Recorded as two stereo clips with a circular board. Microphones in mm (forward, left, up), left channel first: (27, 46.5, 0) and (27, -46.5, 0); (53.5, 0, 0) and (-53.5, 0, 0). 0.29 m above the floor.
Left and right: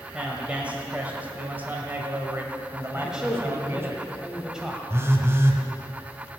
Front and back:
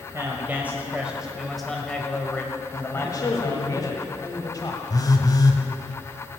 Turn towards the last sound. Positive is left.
turn(degrees=-40)